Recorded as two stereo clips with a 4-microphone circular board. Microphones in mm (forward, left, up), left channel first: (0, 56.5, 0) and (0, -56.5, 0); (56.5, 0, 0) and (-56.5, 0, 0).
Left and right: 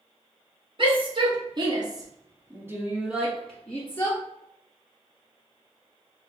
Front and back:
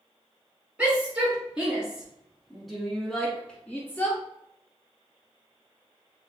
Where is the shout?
105° right, 2 m; by 4.2 s 60° left, 1.3 m.